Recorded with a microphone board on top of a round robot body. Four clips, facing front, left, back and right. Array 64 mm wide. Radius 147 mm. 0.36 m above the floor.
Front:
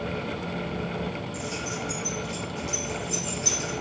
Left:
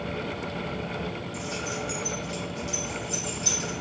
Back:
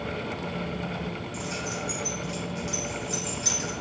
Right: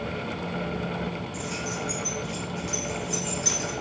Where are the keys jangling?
125° right, 1.8 m.